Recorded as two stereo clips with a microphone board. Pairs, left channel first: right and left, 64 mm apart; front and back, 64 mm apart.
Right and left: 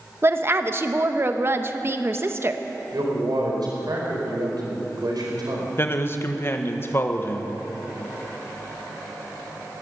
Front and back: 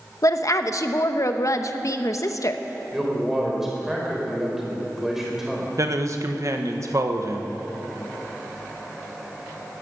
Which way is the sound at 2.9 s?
95° left.